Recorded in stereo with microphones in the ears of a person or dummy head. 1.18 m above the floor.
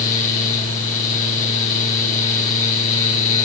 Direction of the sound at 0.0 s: 40° left (ahead or behind).